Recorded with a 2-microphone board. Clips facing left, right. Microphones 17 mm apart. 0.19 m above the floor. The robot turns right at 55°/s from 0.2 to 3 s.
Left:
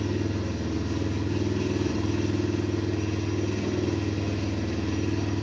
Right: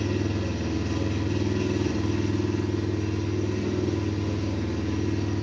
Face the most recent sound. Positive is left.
turn(degrees=50)